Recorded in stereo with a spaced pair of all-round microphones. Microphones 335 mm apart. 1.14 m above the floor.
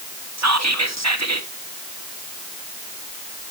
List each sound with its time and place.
0.4 s whispering: 50° right (ahead or behind), 1.1 m